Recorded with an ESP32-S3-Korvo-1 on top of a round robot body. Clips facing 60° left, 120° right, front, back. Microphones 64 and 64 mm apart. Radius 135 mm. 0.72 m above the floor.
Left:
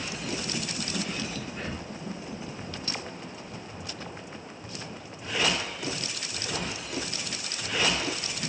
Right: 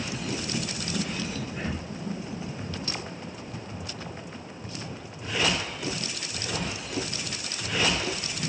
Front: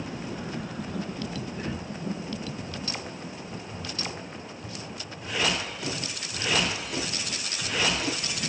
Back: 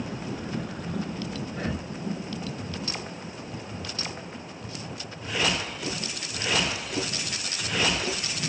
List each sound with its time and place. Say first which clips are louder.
1.5 s breathing: right 3 dB, back 2 dB; 155° left, 3 m